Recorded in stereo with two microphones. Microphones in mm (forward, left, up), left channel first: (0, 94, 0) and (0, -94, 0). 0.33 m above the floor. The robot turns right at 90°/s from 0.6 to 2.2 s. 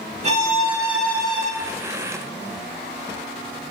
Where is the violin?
35° right, 0.6 m; by 1.5 s 45° left, 0.6 m.